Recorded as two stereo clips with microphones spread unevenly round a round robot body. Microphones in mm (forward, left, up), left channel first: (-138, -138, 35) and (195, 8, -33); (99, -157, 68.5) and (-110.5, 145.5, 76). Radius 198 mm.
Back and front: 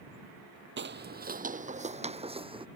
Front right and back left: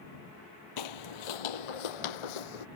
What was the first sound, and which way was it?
Footsteps, 40° right.